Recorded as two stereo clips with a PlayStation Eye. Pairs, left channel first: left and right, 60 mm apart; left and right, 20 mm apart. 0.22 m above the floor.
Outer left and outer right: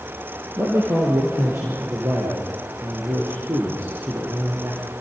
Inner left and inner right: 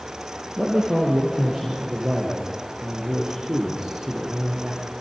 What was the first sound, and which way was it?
A man speaking, 40° right (ahead or behind).